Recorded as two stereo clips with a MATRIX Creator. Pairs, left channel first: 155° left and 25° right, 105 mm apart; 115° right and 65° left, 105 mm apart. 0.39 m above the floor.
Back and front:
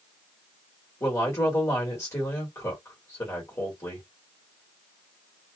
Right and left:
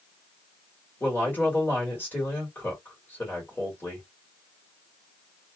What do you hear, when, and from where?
1.0 s a woman speaking: 170° right, 1.5 m